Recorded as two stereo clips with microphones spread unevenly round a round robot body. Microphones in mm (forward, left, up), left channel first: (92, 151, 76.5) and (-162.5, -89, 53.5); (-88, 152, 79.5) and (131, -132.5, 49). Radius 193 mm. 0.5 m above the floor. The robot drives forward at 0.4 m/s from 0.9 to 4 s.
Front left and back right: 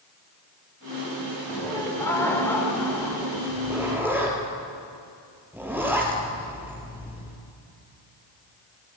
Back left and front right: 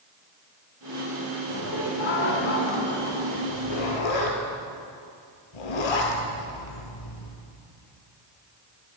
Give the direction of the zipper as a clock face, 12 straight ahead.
7 o'clock.